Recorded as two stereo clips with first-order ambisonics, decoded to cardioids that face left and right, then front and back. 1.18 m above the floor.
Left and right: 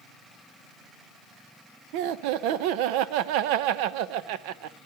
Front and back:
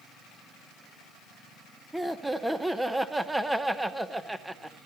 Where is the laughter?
95° right, 0.8 m.